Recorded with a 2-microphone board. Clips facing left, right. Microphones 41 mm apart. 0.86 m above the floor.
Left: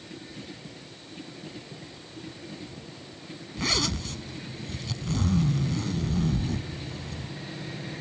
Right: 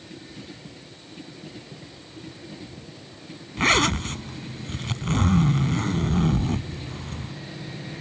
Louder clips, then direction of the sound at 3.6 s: Right 9 dB; 50° right (ahead or behind).